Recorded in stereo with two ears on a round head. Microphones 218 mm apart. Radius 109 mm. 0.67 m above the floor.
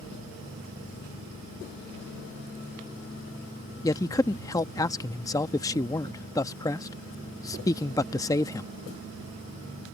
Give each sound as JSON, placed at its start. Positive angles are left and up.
{"t": 3.8, "sound": "a man speaking", "side_deg": 15}